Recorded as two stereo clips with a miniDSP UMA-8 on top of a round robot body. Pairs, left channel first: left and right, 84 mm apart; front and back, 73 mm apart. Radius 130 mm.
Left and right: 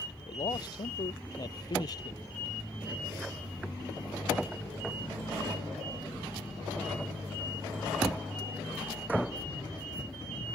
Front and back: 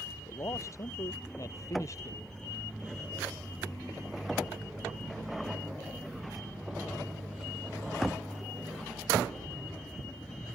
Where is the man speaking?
50° left; by 2.2 s 45° left.